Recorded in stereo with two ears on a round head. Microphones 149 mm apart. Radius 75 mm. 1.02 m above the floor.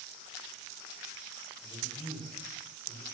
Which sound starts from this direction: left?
A man speaking, at 1.6 s.